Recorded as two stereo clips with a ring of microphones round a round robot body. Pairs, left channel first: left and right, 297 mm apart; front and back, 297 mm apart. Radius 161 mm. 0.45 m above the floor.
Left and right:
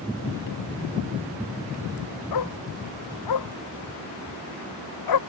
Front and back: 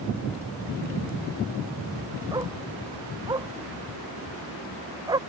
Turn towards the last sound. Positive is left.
turn(degrees=100)